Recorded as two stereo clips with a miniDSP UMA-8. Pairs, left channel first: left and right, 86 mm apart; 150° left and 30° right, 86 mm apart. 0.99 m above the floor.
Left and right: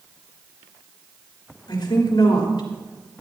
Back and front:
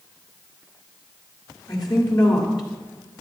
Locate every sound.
1.7 s a woman speaking: 115° left, 3 m